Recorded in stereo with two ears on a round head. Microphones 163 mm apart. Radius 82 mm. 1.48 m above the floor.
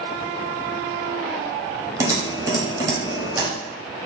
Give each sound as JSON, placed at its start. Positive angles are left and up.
{"t": 2.0, "sound": "typing on a keyboard", "side_deg": -15, "distance_m": 0.8}